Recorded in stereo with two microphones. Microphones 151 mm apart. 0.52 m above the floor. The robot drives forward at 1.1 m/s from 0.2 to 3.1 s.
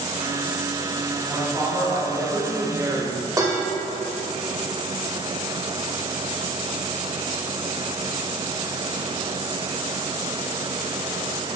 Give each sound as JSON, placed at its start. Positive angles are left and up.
{"t": 1.2, "sound": "a woman speaking", "side_deg": -10, "distance_m": 3.0}
{"t": 3.4, "sound": "dishes clattering", "side_deg": -25, "distance_m": 1.3}